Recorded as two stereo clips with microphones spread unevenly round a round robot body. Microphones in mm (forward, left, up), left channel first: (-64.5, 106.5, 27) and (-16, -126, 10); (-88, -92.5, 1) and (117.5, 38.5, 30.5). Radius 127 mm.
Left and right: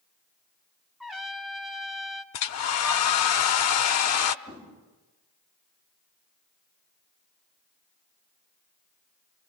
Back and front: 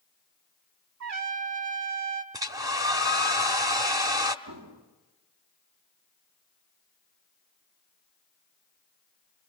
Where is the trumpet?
15° left, 1.3 m.